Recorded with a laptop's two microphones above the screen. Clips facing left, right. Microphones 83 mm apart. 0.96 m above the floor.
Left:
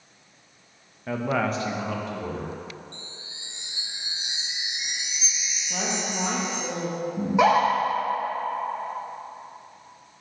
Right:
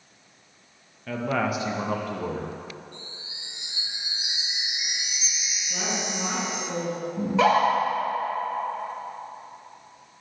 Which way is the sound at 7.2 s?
15° left (ahead or behind).